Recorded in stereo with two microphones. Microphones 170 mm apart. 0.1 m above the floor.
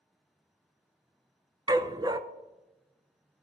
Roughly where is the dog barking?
Right.